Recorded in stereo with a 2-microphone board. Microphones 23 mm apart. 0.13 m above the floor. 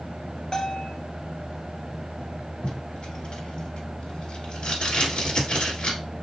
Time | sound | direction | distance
0.5 | a bell | 30° left (ahead or behind) | 1.0 m
2.6 | tape being pulled | 45° left (ahead or behind) | 2.5 m